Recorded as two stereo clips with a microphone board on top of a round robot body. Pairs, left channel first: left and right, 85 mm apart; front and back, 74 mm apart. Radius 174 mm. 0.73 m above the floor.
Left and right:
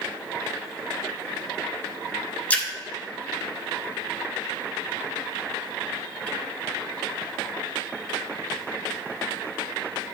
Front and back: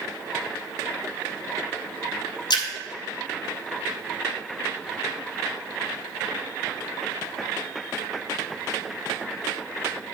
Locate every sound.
2.5 s a splash: 20° left, 1.5 m